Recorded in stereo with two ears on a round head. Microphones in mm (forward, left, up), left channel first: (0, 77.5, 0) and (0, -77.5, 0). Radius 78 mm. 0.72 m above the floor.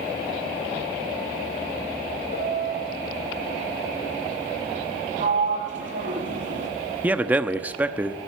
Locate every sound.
2.3 s a piano: 60° left (ahead or behind), 2.5 m
5.2 s a sliding door: 50° right (ahead or behind), 4.5 m
7.0 s a man speaking: 10° right (ahead or behind), 0.7 m